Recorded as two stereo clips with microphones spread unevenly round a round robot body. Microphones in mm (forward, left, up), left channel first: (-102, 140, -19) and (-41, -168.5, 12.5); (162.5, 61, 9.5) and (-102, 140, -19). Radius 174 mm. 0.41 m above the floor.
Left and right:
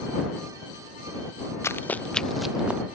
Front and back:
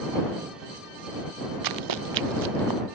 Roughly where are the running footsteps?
Behind.